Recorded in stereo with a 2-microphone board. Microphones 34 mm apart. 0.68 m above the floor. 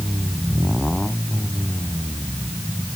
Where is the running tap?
No running tap in this recording.